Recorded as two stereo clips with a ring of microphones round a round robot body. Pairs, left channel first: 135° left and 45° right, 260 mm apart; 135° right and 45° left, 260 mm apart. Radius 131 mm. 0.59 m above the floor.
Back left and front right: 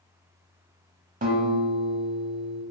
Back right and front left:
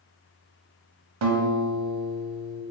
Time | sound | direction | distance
1.2 | a guitar | 15° left | 0.9 m